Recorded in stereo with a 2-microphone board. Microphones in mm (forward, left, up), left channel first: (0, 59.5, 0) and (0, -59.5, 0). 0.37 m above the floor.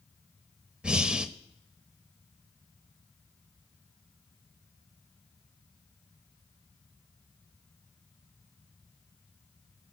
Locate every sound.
0.8 s breathing: 10° right (ahead or behind), 0.6 m